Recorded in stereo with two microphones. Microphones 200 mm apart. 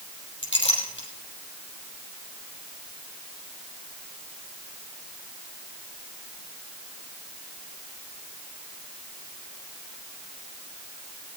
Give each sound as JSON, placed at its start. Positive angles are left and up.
{"t": 0.4, "sound": "a clink", "side_deg": 80, "distance_m": 4.0}